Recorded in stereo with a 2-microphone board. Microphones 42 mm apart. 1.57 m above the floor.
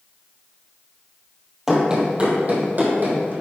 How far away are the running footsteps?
About 1.7 m.